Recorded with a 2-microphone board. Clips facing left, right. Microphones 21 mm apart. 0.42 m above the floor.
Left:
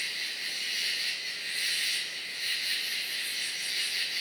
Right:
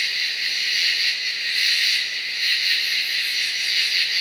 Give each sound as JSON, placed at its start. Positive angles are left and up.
{"t": 0.0, "sound": "an insect", "side_deg": -60, "distance_m": 0.8}